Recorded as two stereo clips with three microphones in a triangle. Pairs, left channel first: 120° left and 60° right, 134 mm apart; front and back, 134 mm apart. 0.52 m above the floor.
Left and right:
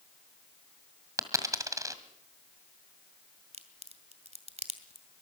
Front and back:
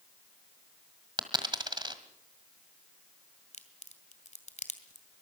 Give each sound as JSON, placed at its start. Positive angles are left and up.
{"t": 1.2, "sound": "a dropped coin", "azimuth_deg": -125, "distance_m": 1.7}
{"t": 3.5, "sound": "a crack", "azimuth_deg": -25, "distance_m": 2.0}